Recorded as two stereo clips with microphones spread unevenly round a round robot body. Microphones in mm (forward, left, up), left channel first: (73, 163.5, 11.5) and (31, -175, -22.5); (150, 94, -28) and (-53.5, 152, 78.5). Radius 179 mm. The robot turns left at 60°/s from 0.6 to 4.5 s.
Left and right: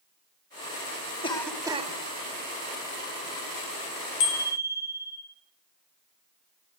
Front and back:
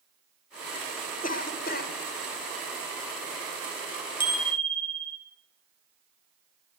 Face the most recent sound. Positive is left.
turn(degrees=30)